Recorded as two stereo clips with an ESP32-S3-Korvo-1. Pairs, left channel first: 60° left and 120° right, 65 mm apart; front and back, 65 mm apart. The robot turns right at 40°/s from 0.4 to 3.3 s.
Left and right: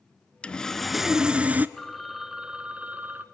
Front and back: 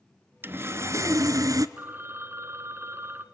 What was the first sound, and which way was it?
Sawing, 130° left.